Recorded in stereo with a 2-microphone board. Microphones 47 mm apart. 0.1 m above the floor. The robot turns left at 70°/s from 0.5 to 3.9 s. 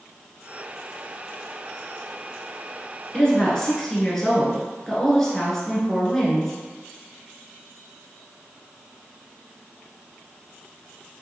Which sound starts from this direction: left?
A woman speaking, at 3.1 s.